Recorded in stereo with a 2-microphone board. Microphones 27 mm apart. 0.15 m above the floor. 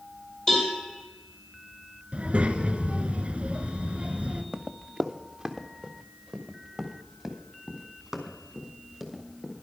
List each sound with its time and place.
0.5 s a cowbell: 30° left (ahead or behind), 4.5 m
2.1 s a child speaking: 50° right (ahead or behind), 1.0 m
4.5 s running footsteps: 20° right (ahead or behind), 0.6 m; by 9.5 s 5° right (ahead or behind), 3.5 m